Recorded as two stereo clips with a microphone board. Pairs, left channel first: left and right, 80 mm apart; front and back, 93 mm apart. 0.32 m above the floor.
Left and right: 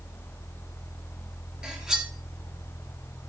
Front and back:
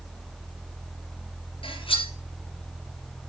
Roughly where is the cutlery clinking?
Ahead.